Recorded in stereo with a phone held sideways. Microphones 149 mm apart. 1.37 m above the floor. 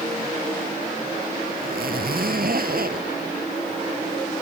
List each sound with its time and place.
1.6 s a zipper: 70° right (ahead or behind)